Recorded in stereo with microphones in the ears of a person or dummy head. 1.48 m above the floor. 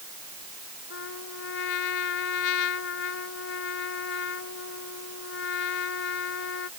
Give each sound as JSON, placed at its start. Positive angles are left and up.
{"t": 0.9, "sound": "a trumpet", "side_deg": 70}